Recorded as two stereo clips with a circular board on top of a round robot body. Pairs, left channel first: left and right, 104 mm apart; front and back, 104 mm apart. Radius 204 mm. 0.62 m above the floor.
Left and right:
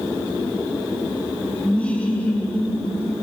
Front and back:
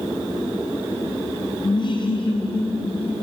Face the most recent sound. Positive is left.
turn(degrees=20)